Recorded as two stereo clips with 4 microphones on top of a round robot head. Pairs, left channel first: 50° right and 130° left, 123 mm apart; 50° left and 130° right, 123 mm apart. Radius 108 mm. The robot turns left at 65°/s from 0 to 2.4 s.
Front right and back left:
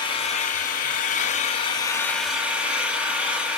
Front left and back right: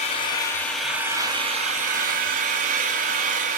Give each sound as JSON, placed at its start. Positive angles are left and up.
{"t": 0.0, "sound": "an engine running", "azimuth_deg": 10, "distance_m": 1.8}